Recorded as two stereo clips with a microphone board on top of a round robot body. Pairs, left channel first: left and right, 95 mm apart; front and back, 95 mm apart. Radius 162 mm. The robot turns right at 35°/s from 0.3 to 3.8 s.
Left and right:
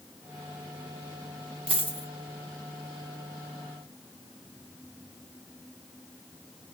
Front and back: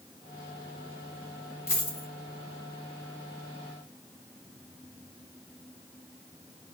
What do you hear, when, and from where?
1.7 s a dropped coin: 65° right, 1.7 m; by 2.1 s 50° right, 1.7 m